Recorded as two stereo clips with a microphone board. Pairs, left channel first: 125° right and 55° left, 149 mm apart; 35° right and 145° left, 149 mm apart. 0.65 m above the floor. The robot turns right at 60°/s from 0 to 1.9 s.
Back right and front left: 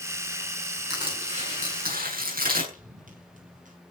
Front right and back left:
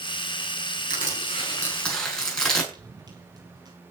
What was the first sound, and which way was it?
Crushing, 10° right.